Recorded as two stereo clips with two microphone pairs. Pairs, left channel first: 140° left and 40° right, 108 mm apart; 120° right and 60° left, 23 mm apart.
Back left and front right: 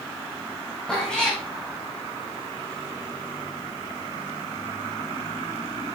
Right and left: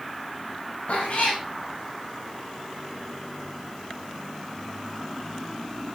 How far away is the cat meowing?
About 3.5 m.